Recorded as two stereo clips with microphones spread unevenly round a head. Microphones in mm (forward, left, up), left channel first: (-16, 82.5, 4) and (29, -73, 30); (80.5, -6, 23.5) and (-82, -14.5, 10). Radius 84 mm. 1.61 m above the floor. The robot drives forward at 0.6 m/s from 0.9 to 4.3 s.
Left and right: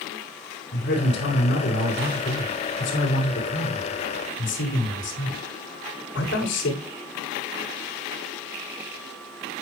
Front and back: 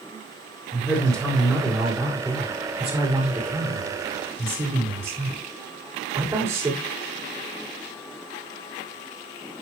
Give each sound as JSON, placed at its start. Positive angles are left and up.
{"t": 0.7, "sound": "a man speaking", "azimuth_deg": 90, "distance_m": 5.5}